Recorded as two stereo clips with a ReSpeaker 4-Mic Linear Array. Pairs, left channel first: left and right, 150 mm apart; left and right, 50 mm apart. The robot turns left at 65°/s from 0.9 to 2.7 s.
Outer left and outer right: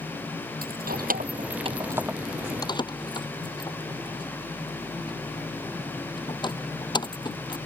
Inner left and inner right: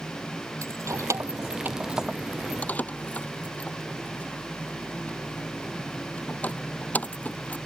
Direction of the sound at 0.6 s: 85° right.